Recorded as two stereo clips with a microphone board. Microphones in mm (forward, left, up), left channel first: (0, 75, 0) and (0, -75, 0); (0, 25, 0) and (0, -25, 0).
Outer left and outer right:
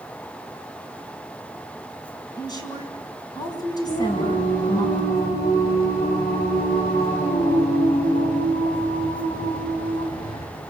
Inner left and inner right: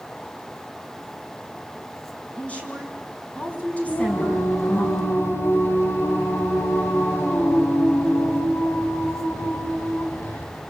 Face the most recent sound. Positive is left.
turn(degrees=70)  # may be behind; listen again after turning